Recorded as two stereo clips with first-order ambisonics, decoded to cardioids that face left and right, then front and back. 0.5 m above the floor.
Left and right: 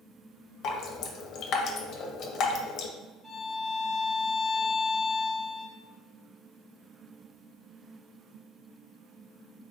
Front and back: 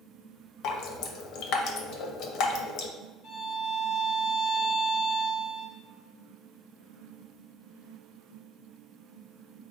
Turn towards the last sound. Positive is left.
turn(degrees=-5)